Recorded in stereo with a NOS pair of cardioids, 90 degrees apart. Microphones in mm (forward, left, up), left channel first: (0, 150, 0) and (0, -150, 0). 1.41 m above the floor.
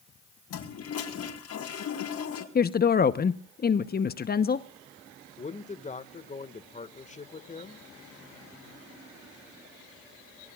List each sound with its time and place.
0.5 s a toilet flushing: 55° left, 5 m
2.5 s a woman speaking: 30° left, 1.0 m
5.4 s a man speaking: 25° left, 1.8 m